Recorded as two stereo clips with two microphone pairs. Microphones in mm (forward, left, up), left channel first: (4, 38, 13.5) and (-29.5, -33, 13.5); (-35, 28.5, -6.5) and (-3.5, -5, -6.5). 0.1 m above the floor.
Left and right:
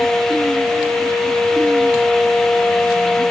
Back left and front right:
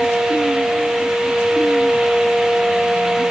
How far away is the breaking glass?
I don't hear breaking glass.